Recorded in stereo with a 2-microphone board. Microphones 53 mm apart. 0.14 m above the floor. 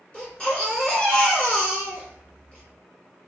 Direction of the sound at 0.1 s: 20° left (ahead or behind).